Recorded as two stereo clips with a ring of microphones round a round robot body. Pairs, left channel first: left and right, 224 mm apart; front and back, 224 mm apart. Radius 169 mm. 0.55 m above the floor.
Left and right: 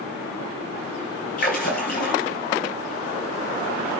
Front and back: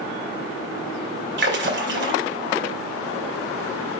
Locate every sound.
1.4 s a splash: 145° left, 2.5 m